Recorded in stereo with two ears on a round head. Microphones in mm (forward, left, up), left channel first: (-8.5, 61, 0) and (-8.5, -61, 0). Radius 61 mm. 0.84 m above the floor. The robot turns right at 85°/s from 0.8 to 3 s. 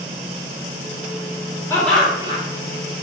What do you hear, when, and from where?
1.7 s laughter: 160° left, 2.5 m; by 2.4 s 140° right, 2.5 m